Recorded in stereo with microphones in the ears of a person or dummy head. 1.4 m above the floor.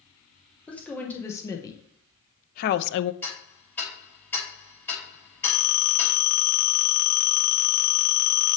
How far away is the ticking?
About 5 m.